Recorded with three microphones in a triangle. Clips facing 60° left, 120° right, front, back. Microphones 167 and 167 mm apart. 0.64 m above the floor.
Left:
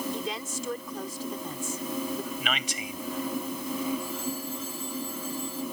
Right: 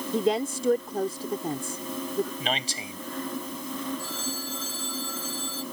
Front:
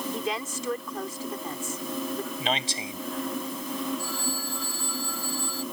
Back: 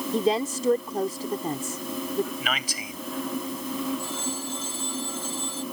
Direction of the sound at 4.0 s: 110° right.